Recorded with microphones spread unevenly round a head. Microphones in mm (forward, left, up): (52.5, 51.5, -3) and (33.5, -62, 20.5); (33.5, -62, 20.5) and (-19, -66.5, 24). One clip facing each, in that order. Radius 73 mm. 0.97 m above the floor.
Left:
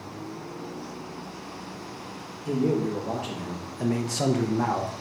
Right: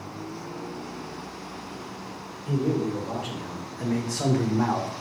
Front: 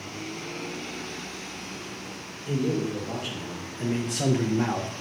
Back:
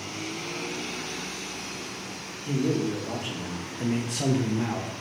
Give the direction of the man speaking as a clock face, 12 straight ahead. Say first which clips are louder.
Left 1 dB, back 1 dB; 8 o'clock.